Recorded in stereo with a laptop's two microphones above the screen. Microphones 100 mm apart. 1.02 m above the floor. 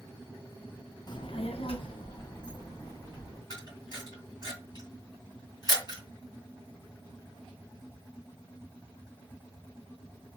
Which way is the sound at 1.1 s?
45° left (ahead or behind).